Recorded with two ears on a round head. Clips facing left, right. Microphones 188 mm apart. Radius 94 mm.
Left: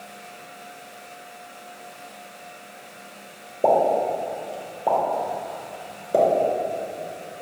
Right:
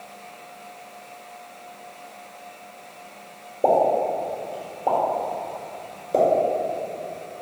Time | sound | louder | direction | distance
3.6 | a pop | even | 5° left (ahead or behind) | 1.6 m